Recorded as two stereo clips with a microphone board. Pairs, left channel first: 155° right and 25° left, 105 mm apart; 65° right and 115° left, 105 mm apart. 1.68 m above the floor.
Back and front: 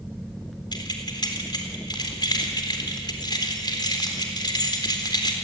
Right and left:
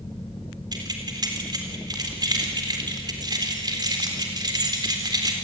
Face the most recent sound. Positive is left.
turn(degrees=160)